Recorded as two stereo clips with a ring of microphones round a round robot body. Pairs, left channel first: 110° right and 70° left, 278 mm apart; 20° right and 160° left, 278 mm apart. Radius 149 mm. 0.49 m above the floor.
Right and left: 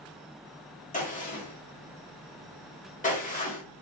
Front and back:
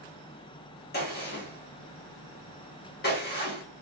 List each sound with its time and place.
0.9 s a gunshot: 60° right, 1.7 m